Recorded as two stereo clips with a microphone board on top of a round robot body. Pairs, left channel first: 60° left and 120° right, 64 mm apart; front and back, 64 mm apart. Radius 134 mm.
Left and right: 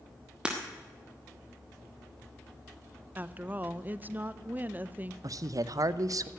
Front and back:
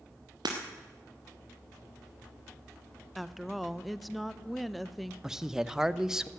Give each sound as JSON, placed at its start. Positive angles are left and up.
{"t": 0.5, "sound": "breaking glass", "azimuth_deg": 165, "distance_m": 1.3}
{"t": 3.1, "sound": "a woman speaking", "azimuth_deg": -90, "distance_m": 0.7}
{"t": 5.2, "sound": "a man speaking", "azimuth_deg": -95, "distance_m": 0.7}